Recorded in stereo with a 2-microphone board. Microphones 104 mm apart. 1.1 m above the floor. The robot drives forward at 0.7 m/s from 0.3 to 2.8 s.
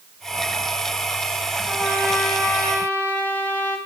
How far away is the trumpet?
About 2.5 m.